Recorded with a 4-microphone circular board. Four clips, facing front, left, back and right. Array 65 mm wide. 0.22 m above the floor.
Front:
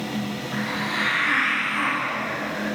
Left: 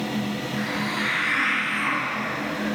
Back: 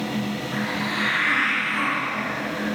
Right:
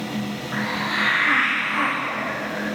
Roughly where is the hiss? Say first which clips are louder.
Right 5 dB, front 1 dB; right.